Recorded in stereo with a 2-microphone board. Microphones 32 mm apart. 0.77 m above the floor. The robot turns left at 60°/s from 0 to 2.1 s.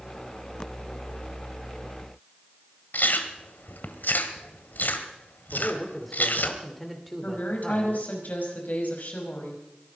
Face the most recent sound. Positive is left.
turn(degrees=60)  # may be behind; listen again after turning